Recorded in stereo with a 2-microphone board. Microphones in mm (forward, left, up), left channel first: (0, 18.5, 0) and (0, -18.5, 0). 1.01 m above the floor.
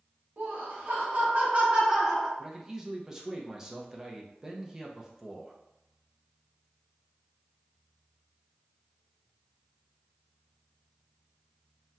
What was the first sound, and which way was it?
Laughter, 65° right (ahead or behind).